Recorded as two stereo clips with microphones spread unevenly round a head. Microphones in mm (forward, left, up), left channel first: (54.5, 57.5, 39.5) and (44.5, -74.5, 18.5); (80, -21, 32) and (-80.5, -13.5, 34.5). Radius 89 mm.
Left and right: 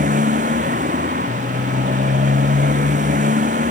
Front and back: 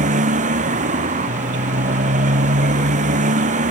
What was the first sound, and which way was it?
A motorcycle, 140° right.